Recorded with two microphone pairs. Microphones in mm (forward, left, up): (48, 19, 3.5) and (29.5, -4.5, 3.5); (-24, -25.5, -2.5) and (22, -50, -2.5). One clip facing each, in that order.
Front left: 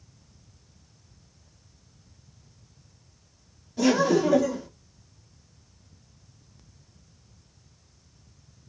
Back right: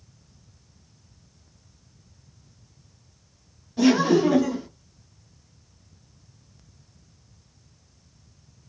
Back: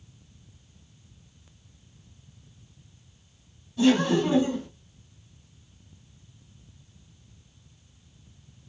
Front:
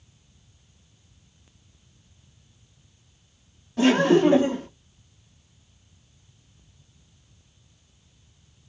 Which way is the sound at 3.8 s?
55° right.